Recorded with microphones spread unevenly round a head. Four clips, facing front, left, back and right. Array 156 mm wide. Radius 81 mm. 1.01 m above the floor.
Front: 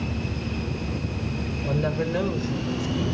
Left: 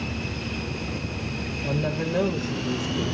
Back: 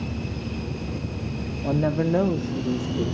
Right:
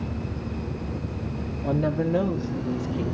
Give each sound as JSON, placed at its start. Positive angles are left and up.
{"t": 1.6, "sound": "a woman speaking", "azimuth_deg": -155, "distance_m": 1.8}